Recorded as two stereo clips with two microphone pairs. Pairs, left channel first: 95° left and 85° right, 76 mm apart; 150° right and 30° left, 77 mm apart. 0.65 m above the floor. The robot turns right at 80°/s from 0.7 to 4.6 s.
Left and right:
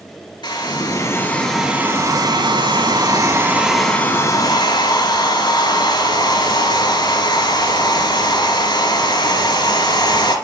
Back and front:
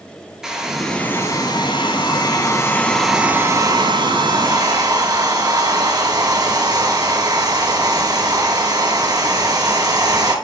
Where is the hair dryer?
115° left, 3.5 m; by 10.3 s 65° left, 3.5 m.